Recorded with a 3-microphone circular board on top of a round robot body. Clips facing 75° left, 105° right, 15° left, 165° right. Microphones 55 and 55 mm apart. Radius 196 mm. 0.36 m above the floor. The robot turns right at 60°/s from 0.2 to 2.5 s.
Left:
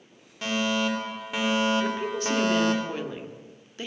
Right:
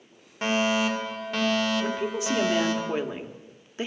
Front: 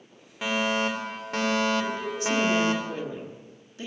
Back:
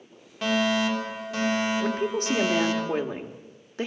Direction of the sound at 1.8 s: 150° left.